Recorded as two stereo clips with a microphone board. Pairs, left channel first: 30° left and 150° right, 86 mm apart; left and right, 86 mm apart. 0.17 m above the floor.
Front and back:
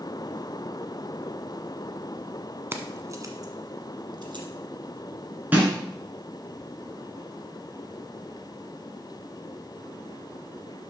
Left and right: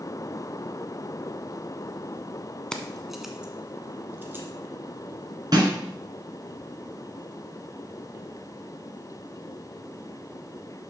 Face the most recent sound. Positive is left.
turn(degrees=-85)